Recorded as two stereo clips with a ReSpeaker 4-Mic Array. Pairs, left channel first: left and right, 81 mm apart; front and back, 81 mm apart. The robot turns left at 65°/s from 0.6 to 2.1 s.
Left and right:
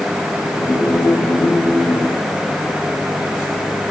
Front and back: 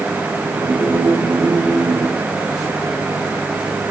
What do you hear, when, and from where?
Only background noise.